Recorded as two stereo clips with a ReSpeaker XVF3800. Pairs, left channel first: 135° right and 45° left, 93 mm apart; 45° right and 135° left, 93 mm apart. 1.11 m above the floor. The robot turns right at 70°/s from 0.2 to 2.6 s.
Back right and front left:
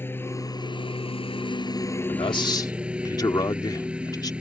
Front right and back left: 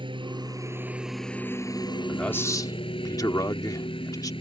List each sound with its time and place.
0.0 s a lawn mower: 160° left; by 4.4 s 35° right
2.1 s a man speaking: 130° right; by 4.3 s 90° right